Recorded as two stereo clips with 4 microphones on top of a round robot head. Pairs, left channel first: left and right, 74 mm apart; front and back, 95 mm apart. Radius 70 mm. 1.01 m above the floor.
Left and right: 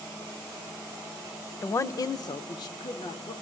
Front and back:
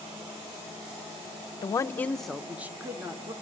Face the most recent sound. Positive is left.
turn(degrees=125)